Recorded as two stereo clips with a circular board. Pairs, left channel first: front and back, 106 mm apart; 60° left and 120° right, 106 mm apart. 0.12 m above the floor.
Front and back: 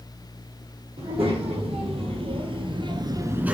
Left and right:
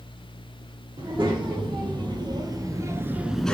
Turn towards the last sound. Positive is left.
turn(degrees=120)